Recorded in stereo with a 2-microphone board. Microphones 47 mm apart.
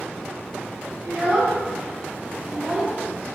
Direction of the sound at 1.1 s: 50° right (ahead or behind).